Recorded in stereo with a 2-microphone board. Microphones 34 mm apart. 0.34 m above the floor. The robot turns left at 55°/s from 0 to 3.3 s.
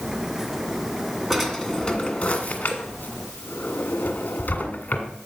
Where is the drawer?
Centre (ahead or behind), 1.7 m; by 5.1 s 65° left (ahead or behind), 1.7 m.